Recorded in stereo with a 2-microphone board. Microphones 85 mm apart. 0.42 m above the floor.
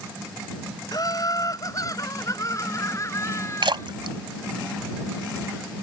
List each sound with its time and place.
0.9 s laughter: 50° left (ahead or behind); by 3.9 s 35° left (ahead or behind)
3.6 s a splash: 75° right (ahead or behind)